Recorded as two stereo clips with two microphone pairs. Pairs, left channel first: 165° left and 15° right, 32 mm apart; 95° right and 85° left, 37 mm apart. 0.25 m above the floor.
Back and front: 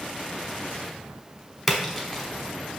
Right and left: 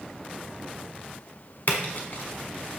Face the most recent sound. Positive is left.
turn(degrees=-105)